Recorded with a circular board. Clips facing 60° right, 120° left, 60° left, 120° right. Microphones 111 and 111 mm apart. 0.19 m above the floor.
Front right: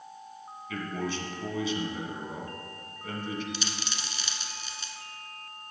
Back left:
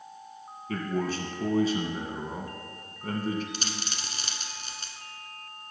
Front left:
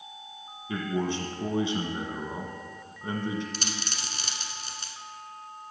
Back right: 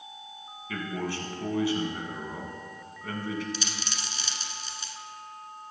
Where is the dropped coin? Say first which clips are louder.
Even, even; 85° left, 1.0 m.